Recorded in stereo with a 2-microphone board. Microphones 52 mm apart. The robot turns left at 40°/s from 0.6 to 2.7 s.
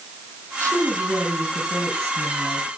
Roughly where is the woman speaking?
Right.